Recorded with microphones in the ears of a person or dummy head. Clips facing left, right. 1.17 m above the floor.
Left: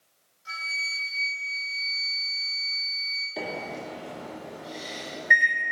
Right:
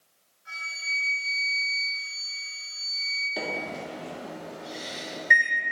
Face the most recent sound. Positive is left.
turn(degrees=0)  # may be behind; listen again after turning